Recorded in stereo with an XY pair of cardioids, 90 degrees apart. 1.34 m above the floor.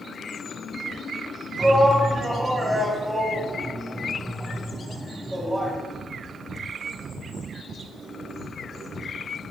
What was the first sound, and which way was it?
A shout, 10° right.